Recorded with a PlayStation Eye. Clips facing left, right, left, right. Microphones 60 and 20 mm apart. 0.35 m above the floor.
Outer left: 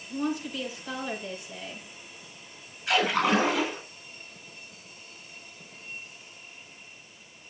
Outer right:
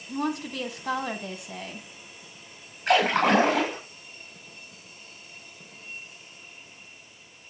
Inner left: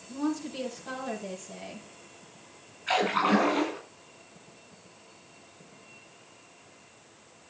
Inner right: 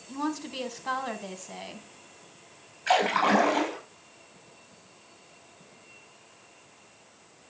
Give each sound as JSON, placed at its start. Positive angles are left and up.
{"t": 0.1, "sound": "a woman speaking", "side_deg": -70, "distance_m": 2.5}
{"t": 2.9, "sound": "a splash", "side_deg": -60, "distance_m": 6.5}